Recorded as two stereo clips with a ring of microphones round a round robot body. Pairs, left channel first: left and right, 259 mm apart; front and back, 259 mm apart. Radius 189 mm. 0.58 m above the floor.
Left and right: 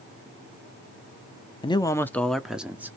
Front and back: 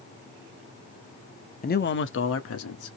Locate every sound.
1.6 s a man speaking: 30° left, 0.7 m; by 3.0 s 10° right, 1.1 m